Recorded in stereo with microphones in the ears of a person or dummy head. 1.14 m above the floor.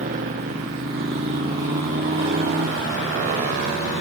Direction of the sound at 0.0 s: 45° right (ahead or behind).